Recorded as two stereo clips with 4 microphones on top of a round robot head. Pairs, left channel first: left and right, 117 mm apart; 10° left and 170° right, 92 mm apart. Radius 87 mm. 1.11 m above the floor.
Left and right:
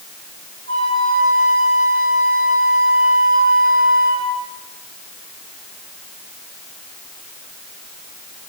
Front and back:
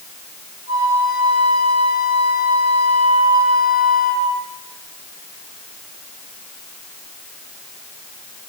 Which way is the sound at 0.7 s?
80° right.